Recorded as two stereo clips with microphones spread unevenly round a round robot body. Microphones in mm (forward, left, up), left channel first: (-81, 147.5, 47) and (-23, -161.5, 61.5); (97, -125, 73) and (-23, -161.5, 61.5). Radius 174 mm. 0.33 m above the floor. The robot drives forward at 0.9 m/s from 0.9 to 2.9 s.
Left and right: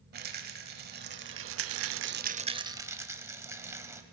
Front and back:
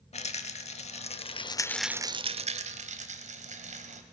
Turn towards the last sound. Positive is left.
turn(degrees=-160)